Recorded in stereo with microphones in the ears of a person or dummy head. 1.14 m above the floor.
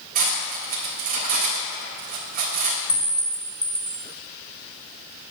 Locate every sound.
0.1 s cutlery clinking: 50° right (ahead or behind), 1.7 m
2.9 s a clink: 20° left (ahead or behind), 1.2 m